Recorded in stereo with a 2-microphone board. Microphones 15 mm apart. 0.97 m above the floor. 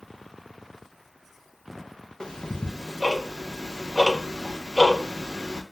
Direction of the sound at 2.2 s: 65° left (ahead or behind).